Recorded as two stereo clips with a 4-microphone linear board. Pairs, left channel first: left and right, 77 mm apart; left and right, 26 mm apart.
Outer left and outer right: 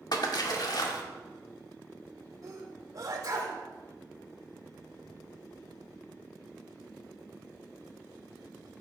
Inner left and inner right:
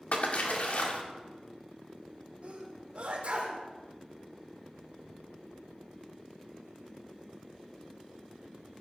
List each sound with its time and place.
0.1 s a splash: 60° left (ahead or behind), 1.9 m
2.4 s a sneeze: 50° right (ahead or behind), 4 m